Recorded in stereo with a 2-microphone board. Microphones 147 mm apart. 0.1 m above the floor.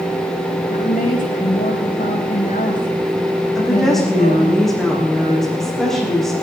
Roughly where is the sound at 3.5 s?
Centre.